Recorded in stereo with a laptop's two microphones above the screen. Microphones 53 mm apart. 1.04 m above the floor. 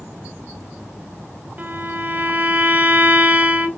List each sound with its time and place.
1.6 s a violin: 30° right (ahead or behind), 0.5 m